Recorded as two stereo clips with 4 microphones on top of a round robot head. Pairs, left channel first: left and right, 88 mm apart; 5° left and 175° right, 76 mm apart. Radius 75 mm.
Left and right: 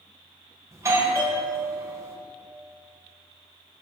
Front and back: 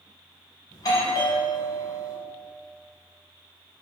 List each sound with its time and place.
0.7 s a doorbell: 35° right, 4 m